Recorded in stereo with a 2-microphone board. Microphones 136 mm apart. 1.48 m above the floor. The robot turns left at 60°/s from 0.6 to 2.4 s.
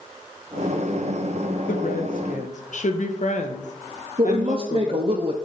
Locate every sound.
1.7 s a woman speaking: 105° left, 1.1 m; by 5.2 s 65° left, 1.1 m
4.2 s a woman speaking: 40° right (ahead or behind), 0.6 m